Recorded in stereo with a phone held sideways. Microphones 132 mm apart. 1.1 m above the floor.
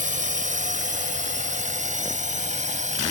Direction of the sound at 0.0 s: 85° right.